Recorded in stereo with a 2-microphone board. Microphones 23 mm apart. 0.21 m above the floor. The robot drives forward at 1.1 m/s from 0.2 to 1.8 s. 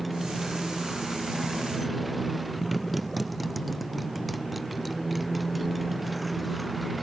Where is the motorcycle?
Centre (ahead or behind).